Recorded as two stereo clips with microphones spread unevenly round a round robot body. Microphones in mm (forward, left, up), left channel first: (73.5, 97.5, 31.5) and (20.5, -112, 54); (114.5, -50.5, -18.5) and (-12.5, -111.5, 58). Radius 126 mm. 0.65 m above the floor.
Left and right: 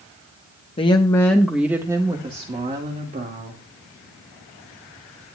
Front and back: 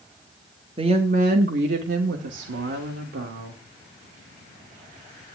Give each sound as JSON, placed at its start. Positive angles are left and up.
{"t": 0.8, "sound": "a woman speaking", "azimuth_deg": 125, "distance_m": 1.0}